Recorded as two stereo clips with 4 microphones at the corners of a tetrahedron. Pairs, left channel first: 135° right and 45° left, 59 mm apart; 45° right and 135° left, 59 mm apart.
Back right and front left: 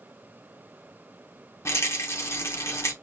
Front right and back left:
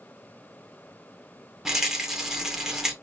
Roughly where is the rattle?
Behind right.